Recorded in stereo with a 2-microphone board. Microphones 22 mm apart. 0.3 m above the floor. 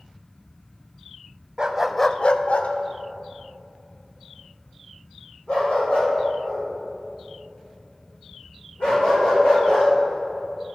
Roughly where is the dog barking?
Right.